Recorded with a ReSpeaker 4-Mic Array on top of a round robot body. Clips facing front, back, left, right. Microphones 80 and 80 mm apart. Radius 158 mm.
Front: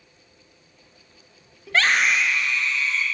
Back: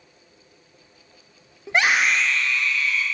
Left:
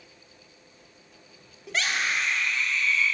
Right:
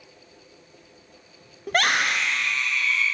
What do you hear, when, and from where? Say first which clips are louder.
1.7 s a scream: back 1 dB, right 6 dB; 120° right, 0.7 m; by 3.0 s 65° right, 1.5 m